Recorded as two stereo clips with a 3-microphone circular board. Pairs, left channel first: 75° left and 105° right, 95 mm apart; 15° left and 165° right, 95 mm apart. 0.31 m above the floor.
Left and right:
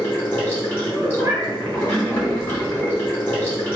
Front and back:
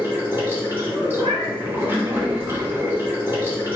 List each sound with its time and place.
0.0 s running water: 135° left, 1.9 m
1.2 s a cat meowing: 160° right, 1.0 m